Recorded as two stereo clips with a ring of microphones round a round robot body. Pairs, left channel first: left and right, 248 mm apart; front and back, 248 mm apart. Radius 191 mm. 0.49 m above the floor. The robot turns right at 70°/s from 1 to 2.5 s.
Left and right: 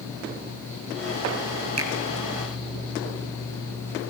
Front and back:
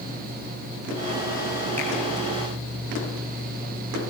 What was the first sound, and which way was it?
A finger snap, 85° right.